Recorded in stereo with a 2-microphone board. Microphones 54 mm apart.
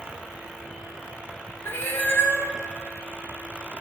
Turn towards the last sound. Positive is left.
turn(degrees=45)  # may be behind; listen again after turning